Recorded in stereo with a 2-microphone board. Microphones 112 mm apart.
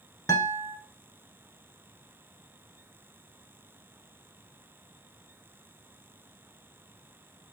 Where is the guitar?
30° left (ahead or behind), 0.8 m.